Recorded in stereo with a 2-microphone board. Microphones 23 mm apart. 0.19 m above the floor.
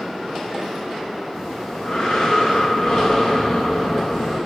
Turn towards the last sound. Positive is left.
turn(degrees=60)  # may be behind; listen again after turning